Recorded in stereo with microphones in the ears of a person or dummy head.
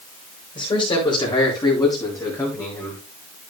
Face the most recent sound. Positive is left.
turn(degrees=15)  # may be behind; listen again after turning